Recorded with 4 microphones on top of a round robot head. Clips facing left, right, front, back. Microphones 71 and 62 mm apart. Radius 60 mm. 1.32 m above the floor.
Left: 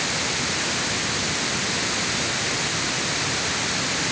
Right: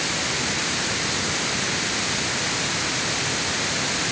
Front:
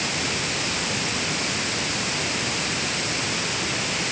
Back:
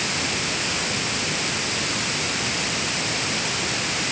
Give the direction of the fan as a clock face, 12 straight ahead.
No fan in this recording.